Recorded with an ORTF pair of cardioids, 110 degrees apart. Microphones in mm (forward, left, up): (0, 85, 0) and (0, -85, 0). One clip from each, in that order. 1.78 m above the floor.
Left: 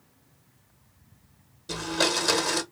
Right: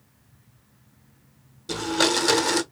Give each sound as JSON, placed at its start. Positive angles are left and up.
{"t": 1.7, "sound": "a blender", "azimuth_deg": -20, "distance_m": 0.9}